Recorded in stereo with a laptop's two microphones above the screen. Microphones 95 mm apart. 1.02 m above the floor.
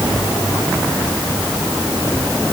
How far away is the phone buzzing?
I don't hear a phone buzzing.